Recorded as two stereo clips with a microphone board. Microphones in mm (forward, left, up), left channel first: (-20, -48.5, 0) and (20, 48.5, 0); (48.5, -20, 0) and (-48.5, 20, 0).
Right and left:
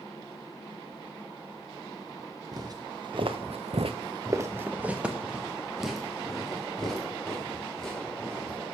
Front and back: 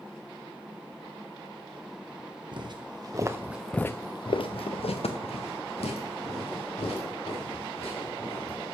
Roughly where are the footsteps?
Behind left.